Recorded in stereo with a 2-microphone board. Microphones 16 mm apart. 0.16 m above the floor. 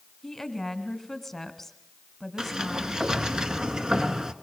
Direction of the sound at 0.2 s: 10° left (ahead or behind).